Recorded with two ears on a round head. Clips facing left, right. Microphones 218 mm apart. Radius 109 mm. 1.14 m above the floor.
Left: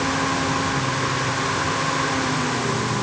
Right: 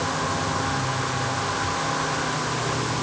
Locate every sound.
Only background noise.